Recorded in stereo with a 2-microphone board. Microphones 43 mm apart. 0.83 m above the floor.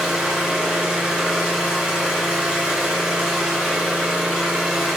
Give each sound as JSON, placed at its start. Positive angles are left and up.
{"t": 0.0, "sound": "an engine running", "side_deg": -20, "distance_m": 4.0}